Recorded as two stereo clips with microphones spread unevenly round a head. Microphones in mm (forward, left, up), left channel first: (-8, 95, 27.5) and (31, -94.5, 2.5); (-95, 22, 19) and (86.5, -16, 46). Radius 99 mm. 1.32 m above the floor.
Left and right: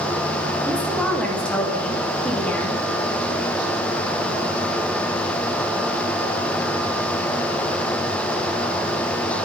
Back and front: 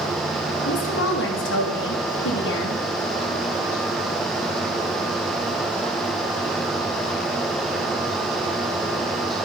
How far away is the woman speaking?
About 3 m.